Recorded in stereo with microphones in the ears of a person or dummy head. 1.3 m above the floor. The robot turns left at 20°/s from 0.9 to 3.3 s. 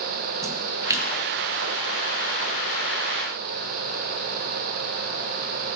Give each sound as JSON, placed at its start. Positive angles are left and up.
{"t": 0.4, "sound": "a splash", "side_deg": -20, "distance_m": 0.6}